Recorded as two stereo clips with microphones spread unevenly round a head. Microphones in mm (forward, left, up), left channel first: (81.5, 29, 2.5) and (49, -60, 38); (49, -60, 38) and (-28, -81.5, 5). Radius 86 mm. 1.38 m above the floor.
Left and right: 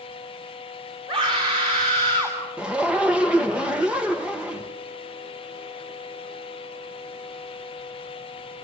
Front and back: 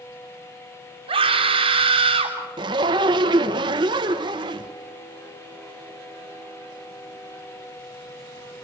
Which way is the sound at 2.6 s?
165° left.